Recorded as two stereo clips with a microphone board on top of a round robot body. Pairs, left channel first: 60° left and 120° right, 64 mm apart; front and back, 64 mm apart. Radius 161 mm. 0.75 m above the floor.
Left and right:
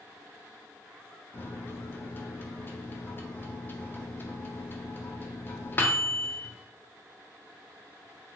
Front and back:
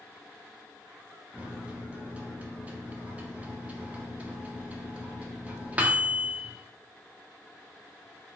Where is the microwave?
115° left, 0.6 m.